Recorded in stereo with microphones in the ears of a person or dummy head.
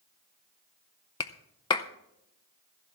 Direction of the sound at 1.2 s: 20° left (ahead or behind).